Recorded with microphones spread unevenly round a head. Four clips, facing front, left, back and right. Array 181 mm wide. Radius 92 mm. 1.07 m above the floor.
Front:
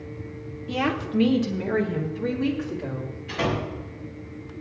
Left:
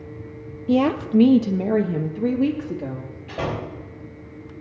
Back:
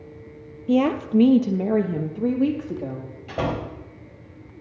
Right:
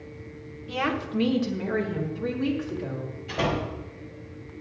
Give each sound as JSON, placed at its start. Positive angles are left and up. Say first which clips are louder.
{"t": 0.7, "sound": "a woman speaking", "louder": "left 9 dB, back 6 dB", "azimuth_deg": 125, "distance_m": 0.5}
{"t": 3.3, "sound": "a door slam", "louder": "even, even", "azimuth_deg": 165, "distance_m": 4.5}